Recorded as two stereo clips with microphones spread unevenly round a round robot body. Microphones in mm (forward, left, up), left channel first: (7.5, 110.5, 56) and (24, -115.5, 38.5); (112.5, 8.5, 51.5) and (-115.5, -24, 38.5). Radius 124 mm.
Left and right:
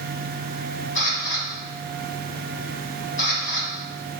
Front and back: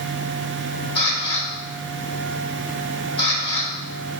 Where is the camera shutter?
60° left, 1.0 m.